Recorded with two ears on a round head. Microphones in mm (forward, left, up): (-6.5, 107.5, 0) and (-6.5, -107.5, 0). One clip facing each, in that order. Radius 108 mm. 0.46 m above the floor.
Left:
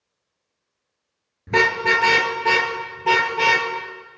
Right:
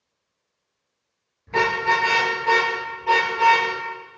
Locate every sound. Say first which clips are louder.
1.5 s a car horn: left 3 dB; 70° left (ahead or behind), 4.5 m